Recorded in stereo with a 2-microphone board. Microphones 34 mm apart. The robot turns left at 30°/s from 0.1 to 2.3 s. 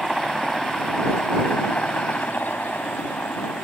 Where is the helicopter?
Straight behind; by 3.6 s 115° left.